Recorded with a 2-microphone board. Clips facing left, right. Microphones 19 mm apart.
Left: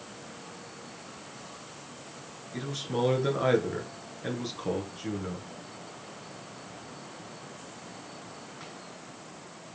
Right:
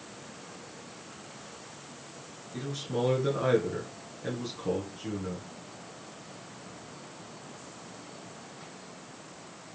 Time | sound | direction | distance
2.5 | a man speaking | 20° left (ahead or behind) | 1.3 m